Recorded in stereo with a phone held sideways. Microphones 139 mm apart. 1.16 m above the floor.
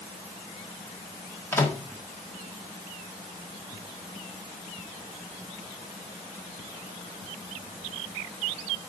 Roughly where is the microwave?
Centre.